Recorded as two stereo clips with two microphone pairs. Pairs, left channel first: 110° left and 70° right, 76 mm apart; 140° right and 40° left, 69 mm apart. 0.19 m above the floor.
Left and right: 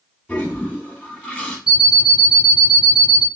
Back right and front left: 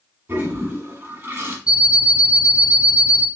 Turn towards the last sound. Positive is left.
turn(degrees=-150)